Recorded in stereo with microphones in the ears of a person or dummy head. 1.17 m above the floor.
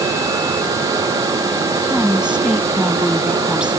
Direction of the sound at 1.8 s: Centre (ahead or behind).